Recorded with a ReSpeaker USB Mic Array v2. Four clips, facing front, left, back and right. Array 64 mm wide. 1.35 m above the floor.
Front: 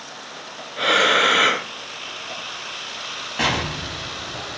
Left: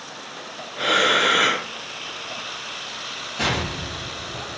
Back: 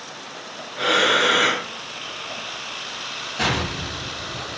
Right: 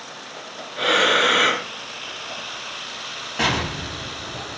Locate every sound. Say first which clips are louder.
0.8 s breathing: right 1 dB, front 1 dB; 30° right, 1.3 m
3.4 s an explosion: right 2 dB, front 1 dB; 45° right, 1.2 m